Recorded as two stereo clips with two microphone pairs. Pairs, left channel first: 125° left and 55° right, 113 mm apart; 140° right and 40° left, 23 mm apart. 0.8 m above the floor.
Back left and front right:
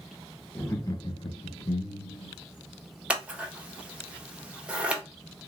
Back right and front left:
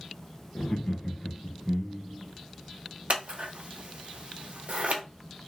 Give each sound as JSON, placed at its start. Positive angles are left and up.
{"t": 0.6, "sound": "laughter", "azimuth_deg": -165, "distance_m": 0.6}
{"t": 3.1, "sound": "scissors", "azimuth_deg": 25, "distance_m": 0.6}